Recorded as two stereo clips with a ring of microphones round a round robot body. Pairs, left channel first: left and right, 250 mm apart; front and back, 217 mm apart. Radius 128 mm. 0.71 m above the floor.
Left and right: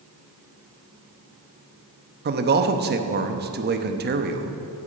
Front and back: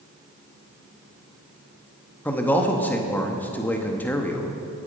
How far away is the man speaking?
About 0.9 m.